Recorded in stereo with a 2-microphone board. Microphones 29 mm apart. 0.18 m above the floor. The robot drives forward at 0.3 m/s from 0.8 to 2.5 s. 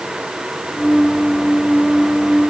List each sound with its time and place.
Only background noise.